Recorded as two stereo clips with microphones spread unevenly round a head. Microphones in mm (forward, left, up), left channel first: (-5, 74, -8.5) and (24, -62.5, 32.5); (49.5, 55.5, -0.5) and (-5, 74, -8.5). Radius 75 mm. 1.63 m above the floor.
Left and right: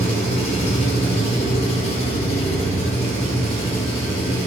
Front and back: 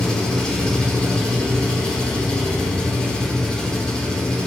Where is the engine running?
55° left, 5 m.